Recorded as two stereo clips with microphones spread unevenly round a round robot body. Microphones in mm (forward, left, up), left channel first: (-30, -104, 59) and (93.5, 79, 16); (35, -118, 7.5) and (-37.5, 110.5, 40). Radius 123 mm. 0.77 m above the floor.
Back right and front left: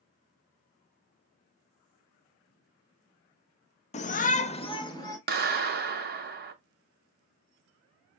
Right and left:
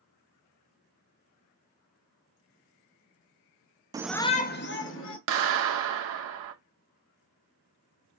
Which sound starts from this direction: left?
A clap, at 5.3 s.